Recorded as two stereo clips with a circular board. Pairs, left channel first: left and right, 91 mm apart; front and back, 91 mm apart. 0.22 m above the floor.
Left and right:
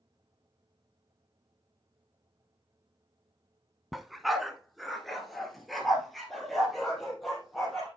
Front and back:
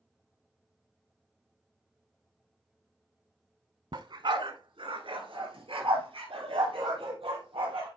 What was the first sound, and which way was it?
A dog barking, straight behind.